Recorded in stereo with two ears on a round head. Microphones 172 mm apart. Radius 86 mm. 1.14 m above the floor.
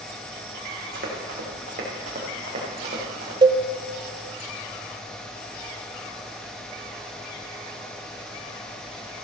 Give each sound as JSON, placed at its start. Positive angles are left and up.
{"t": 0.9, "sound": "running footsteps", "side_deg": -45, "distance_m": 4.5}
{"t": 3.4, "sound": "a cowbell", "side_deg": -25, "distance_m": 0.6}